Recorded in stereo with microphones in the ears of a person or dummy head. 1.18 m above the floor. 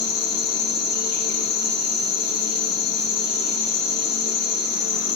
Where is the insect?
50° left (ahead or behind), 2 m.